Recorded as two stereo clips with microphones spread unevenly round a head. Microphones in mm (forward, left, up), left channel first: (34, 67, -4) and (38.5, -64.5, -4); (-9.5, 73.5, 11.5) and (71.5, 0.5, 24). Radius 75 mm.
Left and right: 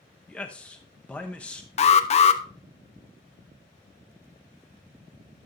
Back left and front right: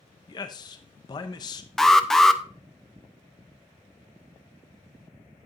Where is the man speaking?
175° left, 0.9 m.